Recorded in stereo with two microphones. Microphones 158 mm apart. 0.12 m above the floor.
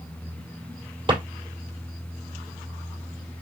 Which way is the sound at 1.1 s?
35° right (ahead or behind).